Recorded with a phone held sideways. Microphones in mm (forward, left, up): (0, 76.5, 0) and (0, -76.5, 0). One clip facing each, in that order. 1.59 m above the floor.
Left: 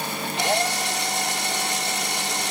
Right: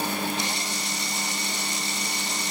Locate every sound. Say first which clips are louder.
0.4 s a drill: left 8 dB; 80° left